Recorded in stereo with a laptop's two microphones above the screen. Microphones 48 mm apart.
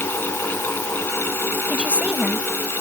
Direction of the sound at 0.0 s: 45° left (ahead or behind).